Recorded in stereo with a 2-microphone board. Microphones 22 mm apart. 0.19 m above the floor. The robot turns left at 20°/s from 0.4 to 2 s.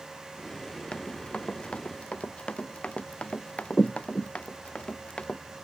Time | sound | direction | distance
0.9 | running footsteps | 50° left (ahead or behind) | ?